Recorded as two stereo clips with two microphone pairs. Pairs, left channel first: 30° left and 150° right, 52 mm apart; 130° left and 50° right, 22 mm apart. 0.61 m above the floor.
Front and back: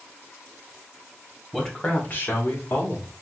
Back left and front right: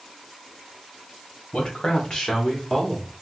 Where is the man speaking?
115° left, 1.0 m; by 3.1 s 50° left, 1.7 m.